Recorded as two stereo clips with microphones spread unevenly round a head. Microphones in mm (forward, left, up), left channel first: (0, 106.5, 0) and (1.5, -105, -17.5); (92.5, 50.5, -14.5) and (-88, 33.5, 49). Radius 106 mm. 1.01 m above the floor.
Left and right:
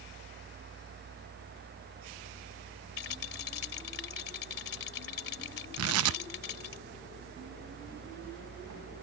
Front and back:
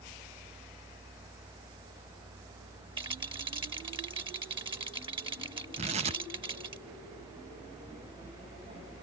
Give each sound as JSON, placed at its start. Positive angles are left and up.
{"t": 3.0, "sound": "a rattle", "azimuth_deg": 120}
{"t": 5.8, "sound": "tearing paper", "azimuth_deg": -110}